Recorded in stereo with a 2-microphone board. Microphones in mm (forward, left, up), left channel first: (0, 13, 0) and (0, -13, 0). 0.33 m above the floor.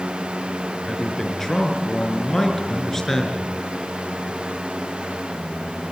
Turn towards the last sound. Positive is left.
turn(degrees=15)  # may be behind; listen again after turning